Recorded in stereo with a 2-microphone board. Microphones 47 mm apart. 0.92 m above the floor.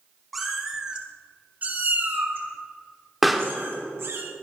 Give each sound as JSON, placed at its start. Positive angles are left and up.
{"t": 0.3, "sound": "a cat meowing", "side_deg": 0, "distance_m": 3.0}
{"t": 3.2, "sound": "a pop", "side_deg": -5, "distance_m": 1.6}